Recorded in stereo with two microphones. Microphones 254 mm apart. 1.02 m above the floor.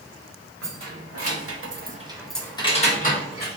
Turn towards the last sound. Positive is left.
turn(degrees=40)  # may be behind; listen again after turning